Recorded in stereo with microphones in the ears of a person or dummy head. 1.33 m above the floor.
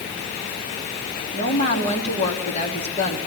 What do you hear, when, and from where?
1.3 s a woman speaking: 40° left (ahead or behind), 3 m